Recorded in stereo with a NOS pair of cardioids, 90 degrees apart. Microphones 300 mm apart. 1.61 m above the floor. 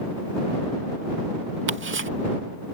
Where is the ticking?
40° right.